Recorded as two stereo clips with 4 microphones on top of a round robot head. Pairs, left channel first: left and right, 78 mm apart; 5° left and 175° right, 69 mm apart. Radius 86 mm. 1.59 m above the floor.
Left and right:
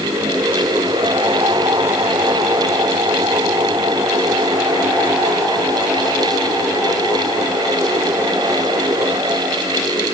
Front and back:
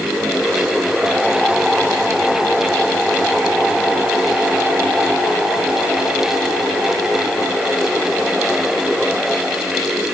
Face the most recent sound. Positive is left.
No sound to turn to.